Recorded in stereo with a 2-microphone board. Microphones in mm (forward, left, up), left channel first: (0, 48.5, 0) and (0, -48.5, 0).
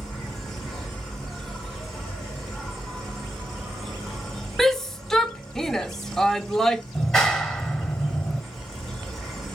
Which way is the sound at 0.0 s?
Centre (ahead or behind).